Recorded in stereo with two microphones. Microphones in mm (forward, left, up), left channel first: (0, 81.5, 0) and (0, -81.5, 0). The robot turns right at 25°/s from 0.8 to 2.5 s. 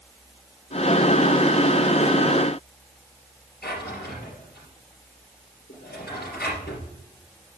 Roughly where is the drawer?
Left.